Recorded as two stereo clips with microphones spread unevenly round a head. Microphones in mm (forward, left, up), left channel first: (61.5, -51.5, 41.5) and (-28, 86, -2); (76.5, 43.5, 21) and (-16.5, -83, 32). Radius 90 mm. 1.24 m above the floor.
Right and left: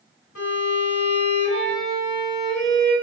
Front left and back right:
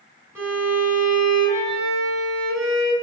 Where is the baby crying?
No baby crying in this recording.